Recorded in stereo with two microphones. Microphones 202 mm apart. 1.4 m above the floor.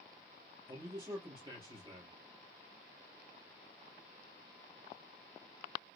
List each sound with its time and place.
0.7 s a man speaking: 15° right (ahead or behind), 3 m